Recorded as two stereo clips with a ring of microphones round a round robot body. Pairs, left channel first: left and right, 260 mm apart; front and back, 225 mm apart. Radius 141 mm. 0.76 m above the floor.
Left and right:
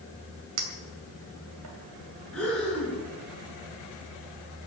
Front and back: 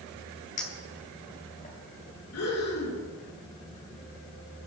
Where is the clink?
65° right, 2.5 m.